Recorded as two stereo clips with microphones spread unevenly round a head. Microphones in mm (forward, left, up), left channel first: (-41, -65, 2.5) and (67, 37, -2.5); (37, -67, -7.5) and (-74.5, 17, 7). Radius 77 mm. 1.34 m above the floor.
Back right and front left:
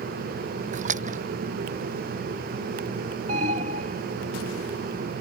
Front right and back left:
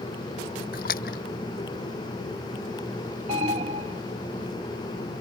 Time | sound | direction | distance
0.7 | a splash | 5° left | ?
3.3 | an alarm | 90° left | ?